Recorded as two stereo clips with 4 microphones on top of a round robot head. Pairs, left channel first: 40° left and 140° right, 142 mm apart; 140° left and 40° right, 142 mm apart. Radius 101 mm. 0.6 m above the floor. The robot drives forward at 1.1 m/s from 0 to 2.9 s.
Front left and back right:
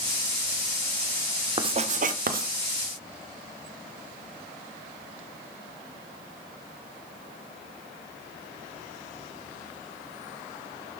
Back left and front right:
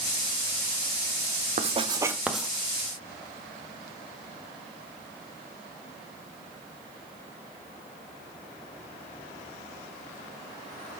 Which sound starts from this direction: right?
Writing, at 1.6 s.